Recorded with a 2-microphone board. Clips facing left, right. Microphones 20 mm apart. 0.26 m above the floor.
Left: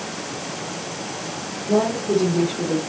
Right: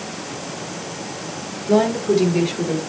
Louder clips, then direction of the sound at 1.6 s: Right 3 dB; 70° right (ahead or behind).